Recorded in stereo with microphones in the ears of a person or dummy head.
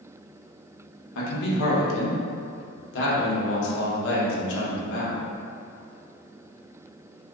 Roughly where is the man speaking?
Left.